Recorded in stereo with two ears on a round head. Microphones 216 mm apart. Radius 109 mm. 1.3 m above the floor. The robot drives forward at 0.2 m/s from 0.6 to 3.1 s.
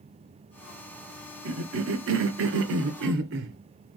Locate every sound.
1.4 s a cough: 60° right (ahead or behind), 0.9 m; by 3.6 s 55° right (ahead or behind), 0.9 m